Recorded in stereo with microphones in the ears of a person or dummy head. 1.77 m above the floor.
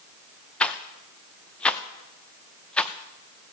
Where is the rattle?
5° left (ahead or behind), 0.6 m.